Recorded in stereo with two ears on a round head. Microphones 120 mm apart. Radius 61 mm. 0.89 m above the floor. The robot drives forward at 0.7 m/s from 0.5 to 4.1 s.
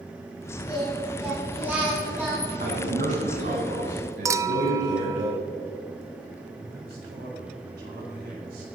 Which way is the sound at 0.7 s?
10° right (ahead or behind).